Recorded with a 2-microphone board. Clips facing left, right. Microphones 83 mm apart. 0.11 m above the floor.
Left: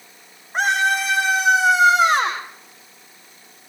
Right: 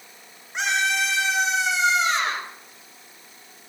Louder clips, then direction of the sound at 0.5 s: Left 5 dB; 45° left (ahead or behind).